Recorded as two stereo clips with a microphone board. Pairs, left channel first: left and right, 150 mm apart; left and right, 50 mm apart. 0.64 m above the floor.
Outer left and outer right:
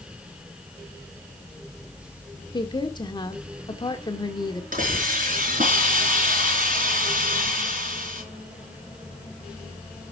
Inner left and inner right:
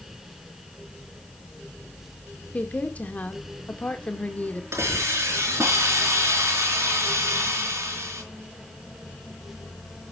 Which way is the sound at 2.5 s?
30° left (ahead or behind).